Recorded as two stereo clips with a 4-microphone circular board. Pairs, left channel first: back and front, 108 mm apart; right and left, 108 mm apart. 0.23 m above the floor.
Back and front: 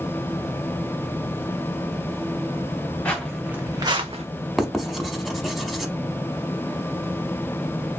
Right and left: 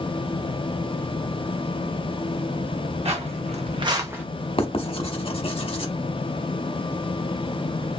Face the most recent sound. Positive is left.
turn(degrees=-90)